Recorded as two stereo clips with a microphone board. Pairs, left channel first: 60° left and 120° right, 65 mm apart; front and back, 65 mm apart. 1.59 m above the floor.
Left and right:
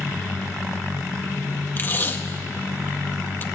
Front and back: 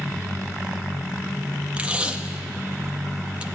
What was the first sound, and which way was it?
Tape being pulled, 110° left.